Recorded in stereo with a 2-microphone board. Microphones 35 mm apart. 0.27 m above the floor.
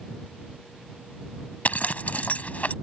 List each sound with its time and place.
1.6 s a zipper: 55° left (ahead or behind)